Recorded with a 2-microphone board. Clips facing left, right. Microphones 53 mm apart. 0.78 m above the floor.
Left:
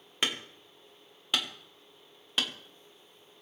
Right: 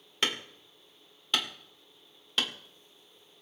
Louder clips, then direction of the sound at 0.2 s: Right 1 dB; 10° left (ahead or behind).